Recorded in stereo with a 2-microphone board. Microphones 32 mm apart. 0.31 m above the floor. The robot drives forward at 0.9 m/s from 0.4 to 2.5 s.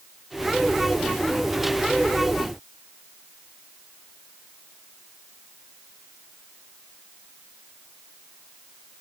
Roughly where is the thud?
I don't hear a thud.